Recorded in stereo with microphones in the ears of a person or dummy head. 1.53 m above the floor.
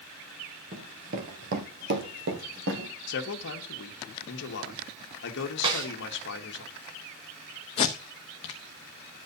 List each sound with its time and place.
0.7 s running footsteps: 30° right (ahead or behind), 1.7 m; by 2.9 s 60° right (ahead or behind), 3.5 m
3.1 s a man speaking: 60° left (ahead or behind), 1.7 m
5.6 s a snare drum: 35° right (ahead or behind), 5 m
7.8 s tape being pulled: 20° left (ahead or behind), 0.9 m